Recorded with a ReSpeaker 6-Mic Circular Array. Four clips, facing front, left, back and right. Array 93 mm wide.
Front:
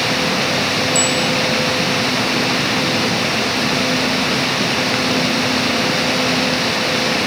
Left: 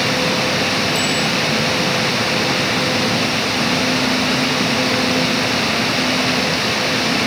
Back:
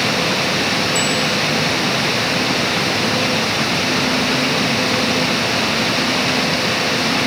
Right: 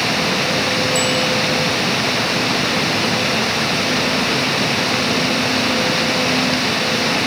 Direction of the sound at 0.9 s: 45° left.